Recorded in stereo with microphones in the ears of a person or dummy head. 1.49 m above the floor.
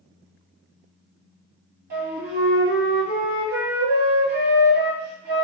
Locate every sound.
1.9 s a flute: 55° right (ahead or behind), 1.7 m